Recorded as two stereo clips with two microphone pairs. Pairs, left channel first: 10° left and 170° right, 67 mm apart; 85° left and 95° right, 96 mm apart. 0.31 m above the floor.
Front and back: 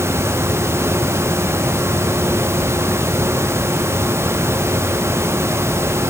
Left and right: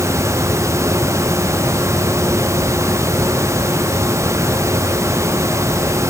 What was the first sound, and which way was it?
Only background noise.